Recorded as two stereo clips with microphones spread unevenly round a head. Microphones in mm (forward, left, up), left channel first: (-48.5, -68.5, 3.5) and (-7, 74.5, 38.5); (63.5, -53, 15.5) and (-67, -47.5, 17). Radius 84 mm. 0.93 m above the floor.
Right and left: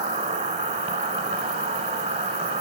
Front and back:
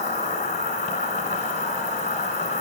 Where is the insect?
40° left, 1.3 m.